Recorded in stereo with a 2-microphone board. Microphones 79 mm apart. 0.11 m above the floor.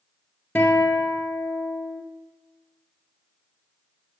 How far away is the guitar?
About 1.6 m.